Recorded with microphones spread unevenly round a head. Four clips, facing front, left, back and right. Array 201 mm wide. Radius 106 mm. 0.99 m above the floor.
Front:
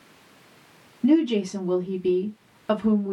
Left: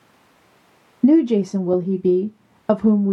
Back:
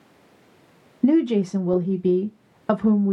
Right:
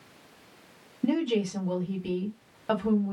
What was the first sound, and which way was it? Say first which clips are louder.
A woman speaking: left 12 dB, back 2 dB; 120° left.